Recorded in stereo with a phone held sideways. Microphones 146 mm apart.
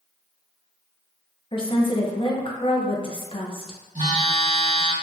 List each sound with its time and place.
1.5 s a woman speaking: 35° left (ahead or behind), 0.7 m
4.0 s a phone buzzing: 50° right (ahead or behind), 1.6 m